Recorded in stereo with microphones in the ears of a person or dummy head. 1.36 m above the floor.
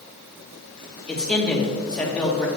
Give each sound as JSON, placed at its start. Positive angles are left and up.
{"t": 1.1, "sound": "a man speaking", "side_deg": 5, "distance_m": 1.7}